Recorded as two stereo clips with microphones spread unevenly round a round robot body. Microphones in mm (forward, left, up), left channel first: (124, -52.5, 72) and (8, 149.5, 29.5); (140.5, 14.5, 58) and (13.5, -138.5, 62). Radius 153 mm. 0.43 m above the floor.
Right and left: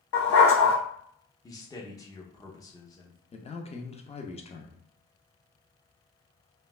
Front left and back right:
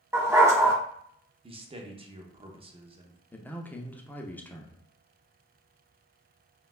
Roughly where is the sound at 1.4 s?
Behind right.